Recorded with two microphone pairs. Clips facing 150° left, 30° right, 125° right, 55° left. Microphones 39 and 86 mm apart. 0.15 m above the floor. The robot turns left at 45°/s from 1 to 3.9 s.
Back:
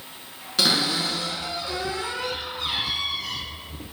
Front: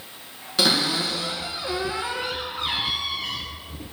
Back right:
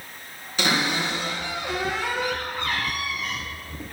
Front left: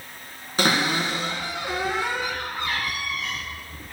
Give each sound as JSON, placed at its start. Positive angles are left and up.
{"t": 0.6, "sound": "a cupboard door", "azimuth_deg": 60, "distance_m": 1.7}